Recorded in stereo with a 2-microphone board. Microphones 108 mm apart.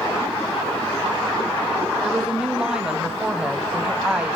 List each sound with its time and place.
2.0 s a woman speaking: 10° right (ahead or behind), 1.5 m